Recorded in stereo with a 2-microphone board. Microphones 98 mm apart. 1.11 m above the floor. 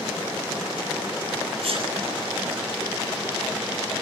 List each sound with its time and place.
1.6 s a sneeze: 60° right (ahead or behind), 7.5 m